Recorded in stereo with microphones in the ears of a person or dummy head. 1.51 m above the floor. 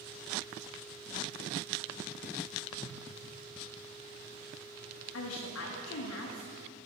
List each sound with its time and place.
2.8 s a whoosh: 5° right (ahead or behind), 0.8 m
5.1 s a woman speaking: 70° left (ahead or behind), 0.6 m